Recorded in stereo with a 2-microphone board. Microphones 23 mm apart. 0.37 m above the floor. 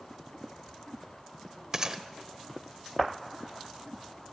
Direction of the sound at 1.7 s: 25° right (ahead or behind).